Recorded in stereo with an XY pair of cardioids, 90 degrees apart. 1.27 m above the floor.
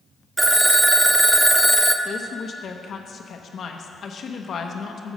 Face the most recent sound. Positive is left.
turn(degrees=55)